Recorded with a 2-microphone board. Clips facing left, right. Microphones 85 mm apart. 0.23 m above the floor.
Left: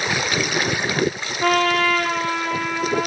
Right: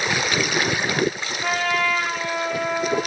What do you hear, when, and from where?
1.4 s a trumpet: 75° left (ahead or behind), 2.5 m